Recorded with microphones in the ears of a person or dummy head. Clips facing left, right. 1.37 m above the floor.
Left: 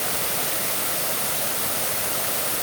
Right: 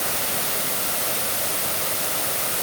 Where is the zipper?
No zipper in this recording.